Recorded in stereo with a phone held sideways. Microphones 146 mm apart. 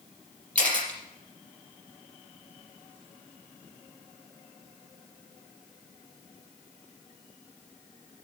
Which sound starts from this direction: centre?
A camera shutter, at 0.6 s.